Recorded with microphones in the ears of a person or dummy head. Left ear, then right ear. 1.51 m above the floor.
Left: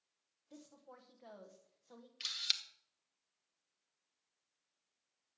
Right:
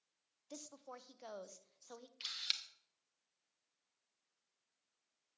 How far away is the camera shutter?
About 0.8 m.